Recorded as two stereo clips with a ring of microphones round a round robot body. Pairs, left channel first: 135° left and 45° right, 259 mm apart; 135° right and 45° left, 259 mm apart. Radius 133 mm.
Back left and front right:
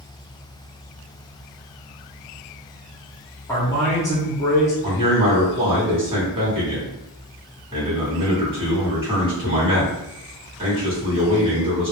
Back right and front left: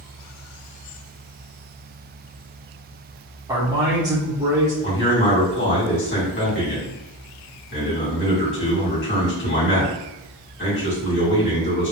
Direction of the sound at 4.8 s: 110° right.